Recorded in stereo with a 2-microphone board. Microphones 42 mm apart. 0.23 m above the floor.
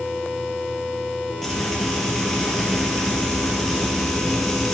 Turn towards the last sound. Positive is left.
turn(degrees=5)  # may be behind; listen again after turning